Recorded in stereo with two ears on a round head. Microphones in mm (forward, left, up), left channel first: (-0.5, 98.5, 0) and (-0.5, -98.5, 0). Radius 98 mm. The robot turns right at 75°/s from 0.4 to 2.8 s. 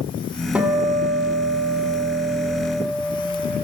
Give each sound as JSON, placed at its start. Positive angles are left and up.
{"t": 0.6, "sound": "a guitar", "azimuth_deg": -175, "distance_m": 1.6}